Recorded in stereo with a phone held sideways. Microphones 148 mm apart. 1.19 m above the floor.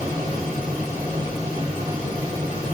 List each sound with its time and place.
0.0 s a fan: 75° left (ahead or behind), 1.6 m